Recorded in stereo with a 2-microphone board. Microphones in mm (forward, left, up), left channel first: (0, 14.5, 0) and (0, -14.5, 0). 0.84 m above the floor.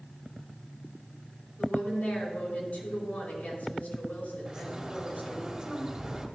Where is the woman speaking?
65° left (ahead or behind), 4 m.